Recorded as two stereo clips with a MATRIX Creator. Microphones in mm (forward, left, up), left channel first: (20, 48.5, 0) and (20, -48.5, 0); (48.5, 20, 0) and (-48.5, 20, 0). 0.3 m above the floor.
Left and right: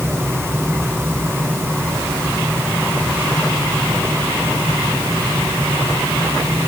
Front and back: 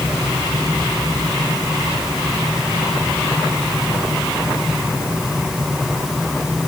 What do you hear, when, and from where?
Only background noise.